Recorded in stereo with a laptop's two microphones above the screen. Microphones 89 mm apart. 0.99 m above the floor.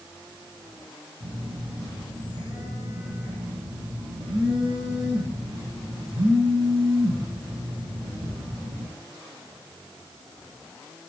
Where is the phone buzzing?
75° right (ahead or behind), 7 m.